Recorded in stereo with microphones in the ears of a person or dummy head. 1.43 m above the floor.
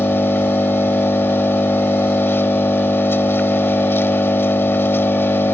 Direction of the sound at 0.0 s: 15° left (ahead or behind).